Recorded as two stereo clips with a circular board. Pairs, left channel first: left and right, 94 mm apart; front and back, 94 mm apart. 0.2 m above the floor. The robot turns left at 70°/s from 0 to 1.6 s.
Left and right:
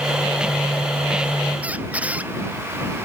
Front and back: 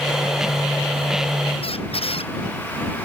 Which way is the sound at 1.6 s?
15° right.